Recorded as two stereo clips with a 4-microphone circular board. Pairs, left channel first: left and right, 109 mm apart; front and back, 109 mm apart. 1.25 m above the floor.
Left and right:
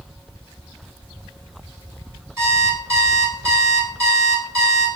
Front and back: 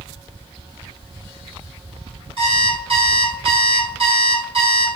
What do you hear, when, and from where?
2.4 s an alarm clock: 150° right, 2.0 m